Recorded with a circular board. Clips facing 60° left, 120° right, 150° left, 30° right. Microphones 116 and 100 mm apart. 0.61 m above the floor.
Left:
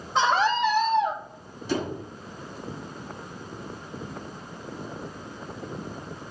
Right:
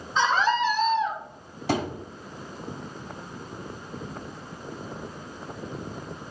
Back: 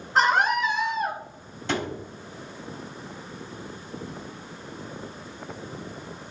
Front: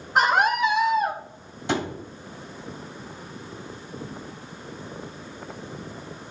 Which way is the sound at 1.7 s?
105° right.